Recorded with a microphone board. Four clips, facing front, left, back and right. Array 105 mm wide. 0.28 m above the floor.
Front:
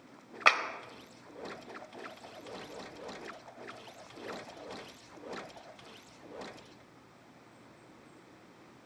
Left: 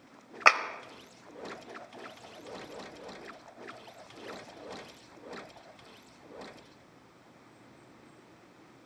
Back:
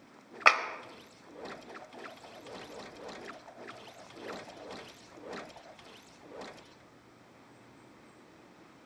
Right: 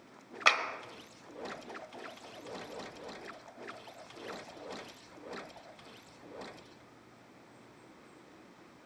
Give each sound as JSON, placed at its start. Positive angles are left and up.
{"t": 0.5, "sound": "a clap", "azimuth_deg": 110, "distance_m": 1.0}